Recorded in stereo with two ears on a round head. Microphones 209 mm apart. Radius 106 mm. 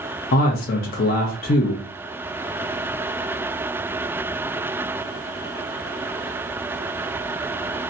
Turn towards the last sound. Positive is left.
turn(degrees=40)  # may be behind; listen again after turning